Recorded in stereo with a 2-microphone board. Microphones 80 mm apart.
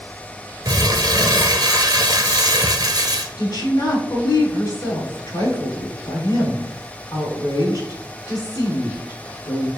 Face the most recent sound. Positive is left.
turn(degrees=45)  # may be behind; listen again after turning